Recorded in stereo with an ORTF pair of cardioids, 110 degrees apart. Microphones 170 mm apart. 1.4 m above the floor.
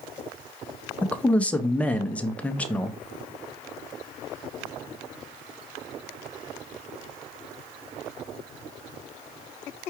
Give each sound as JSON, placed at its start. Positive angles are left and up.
{"t": 1.0, "sound": "a man speaking", "azimuth_deg": 10, "distance_m": 0.6}